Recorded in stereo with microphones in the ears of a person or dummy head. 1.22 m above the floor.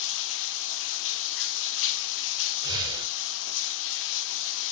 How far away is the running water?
About 1.6 m.